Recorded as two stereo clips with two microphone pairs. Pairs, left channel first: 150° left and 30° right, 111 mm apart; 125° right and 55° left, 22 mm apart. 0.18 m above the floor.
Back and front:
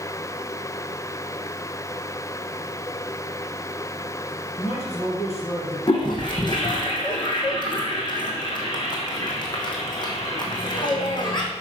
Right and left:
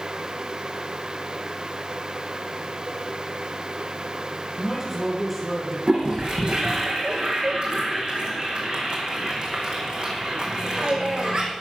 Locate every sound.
4.6 s a man speaking: 135° left, 3.5 m
5.9 s a toilet flushing: 105° left, 2.5 m